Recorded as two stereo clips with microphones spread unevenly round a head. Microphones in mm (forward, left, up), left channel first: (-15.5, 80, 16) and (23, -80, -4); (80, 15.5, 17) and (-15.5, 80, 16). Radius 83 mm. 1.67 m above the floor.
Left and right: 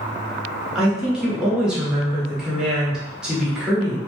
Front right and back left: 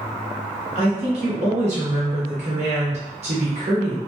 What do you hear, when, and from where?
0.8 s a woman speaking: 165° right, 0.8 m